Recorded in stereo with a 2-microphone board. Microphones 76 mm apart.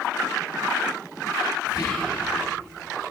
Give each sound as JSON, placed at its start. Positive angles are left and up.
{"t": 1.7, "sound": "whispering", "side_deg": 45, "distance_m": 3.5}